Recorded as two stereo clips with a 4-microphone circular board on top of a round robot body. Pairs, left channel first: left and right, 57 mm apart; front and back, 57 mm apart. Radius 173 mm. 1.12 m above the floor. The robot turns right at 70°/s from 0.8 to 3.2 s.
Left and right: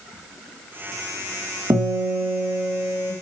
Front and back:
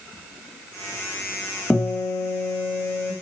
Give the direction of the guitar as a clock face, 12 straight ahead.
3 o'clock.